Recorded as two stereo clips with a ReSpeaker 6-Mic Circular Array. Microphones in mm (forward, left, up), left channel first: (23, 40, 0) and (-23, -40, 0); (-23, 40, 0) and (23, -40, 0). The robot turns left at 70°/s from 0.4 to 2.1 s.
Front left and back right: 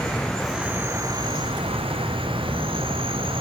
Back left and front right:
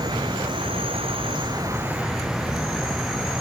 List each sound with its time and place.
0.0 s an insect: 25° right, 3 m; by 3.4 s 145° right, 3 m